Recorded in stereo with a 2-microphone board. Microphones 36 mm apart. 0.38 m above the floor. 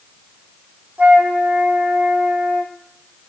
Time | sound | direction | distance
1.0 | a flute | 45° right (ahead or behind) | 4.5 m